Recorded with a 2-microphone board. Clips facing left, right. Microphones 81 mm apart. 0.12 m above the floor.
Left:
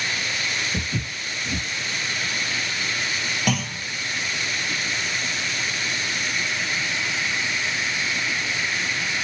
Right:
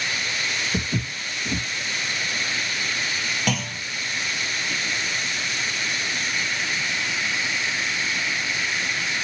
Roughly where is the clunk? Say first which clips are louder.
Left 3 dB; centre.